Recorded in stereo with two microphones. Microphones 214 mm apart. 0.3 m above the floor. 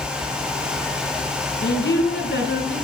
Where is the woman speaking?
60° left (ahead or behind), 3.5 m.